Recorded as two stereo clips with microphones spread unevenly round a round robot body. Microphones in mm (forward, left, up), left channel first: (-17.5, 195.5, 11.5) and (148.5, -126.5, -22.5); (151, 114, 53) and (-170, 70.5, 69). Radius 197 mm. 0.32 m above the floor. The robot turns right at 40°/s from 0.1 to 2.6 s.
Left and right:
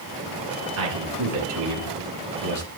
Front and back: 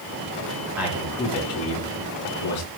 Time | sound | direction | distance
0.8 | a man speaking | 85° right | 4.5 m